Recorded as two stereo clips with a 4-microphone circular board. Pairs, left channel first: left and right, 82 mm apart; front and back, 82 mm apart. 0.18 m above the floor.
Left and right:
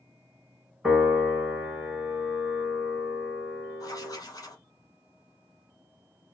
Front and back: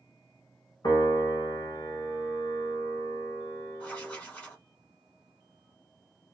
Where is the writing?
70° left, 1.0 m.